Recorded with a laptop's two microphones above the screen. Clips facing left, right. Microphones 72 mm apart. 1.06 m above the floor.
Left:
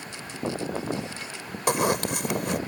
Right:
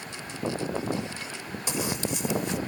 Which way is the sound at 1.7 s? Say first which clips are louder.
Left 7 dB; 60° left (ahead or behind).